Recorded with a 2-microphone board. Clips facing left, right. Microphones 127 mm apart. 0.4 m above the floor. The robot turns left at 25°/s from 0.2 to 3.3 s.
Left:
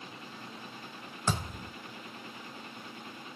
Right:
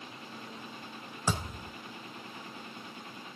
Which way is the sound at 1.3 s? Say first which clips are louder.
Even; 10° right (ahead or behind).